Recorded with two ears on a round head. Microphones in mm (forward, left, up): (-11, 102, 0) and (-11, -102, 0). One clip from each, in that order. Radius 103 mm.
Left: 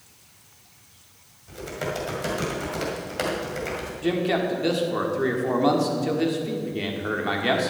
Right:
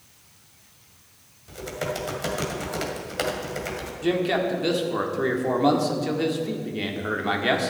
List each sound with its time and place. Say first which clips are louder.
1.5 s typing on a keyboard: even; 15° right (ahead or behind), 1.9 m
4.0 s a man speaking: right 1 dB; 5° right (ahead or behind), 1.5 m